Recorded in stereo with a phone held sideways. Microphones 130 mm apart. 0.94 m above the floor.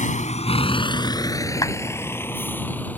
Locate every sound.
0.0 s a vehicle: 80° left; by 3.0 s 10° left (ahead or behind)
1.6 s a clap: 25° left (ahead or behind)